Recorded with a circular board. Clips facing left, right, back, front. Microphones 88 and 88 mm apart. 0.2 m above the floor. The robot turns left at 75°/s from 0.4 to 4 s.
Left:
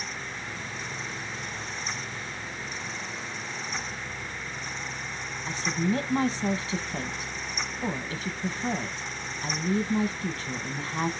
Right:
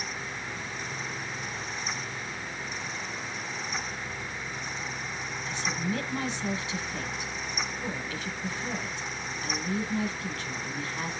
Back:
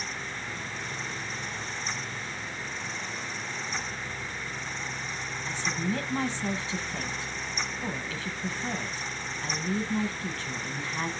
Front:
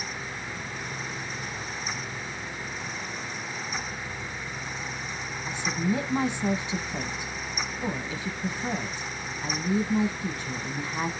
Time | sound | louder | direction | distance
5.5 | a woman speaking | left 5 dB, front 3 dB | 70° left | 1.3 m